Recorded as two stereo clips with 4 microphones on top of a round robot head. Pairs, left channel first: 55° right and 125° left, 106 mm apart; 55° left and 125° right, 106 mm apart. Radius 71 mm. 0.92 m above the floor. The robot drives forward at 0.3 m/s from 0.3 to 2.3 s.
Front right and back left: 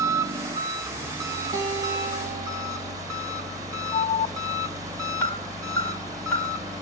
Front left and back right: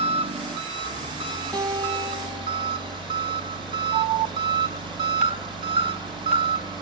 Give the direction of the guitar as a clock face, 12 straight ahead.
6 o'clock.